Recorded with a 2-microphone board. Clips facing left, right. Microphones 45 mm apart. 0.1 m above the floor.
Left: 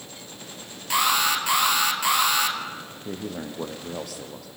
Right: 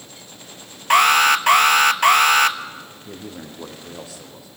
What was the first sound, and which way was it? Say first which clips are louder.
An alarm: right 8 dB; 50° right (ahead or behind).